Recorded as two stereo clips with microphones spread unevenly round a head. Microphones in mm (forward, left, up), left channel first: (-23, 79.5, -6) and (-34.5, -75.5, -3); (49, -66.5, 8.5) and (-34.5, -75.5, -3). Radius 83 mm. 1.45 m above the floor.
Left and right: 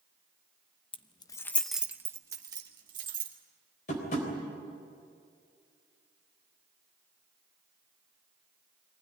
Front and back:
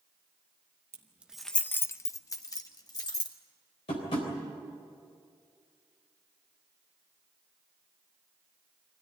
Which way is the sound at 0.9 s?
125° left.